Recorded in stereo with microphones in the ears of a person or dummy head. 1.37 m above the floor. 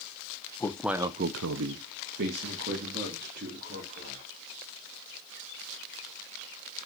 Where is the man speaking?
5° left (ahead or behind), 1.2 m; by 4.2 s 45° right (ahead or behind), 5 m.